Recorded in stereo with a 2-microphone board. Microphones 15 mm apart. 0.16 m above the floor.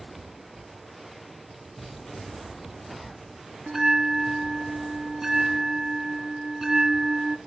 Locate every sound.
3.7 s a bell: 30° right (ahead or behind), 0.8 m